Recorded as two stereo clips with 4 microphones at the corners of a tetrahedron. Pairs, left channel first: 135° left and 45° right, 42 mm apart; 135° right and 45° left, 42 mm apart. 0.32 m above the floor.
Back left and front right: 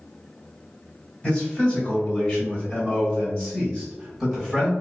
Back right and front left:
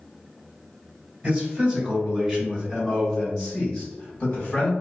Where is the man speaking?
90° left, 1.9 m; by 4.7 s 145° right, 1.7 m.